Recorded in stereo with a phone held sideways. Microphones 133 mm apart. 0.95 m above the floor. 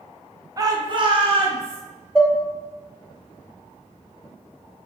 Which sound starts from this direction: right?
A shout, at 0.6 s.